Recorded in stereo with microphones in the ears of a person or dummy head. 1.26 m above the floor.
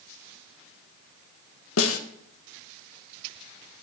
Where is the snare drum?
75° left (ahead or behind), 1.5 m.